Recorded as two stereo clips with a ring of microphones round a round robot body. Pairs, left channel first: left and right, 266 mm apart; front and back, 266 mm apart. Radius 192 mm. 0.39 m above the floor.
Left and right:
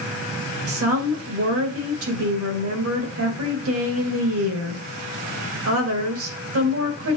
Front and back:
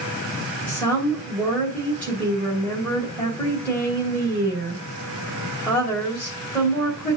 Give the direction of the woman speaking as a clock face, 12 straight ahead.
3 o'clock.